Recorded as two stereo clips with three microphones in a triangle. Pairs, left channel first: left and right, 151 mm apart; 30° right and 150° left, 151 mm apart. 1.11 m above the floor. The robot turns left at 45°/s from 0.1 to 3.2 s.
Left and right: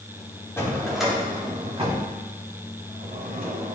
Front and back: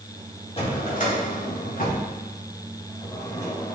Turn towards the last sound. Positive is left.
turn(degrees=-100)